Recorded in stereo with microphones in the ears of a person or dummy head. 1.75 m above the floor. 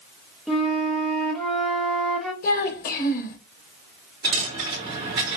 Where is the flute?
5° left (ahead or behind), 0.9 m.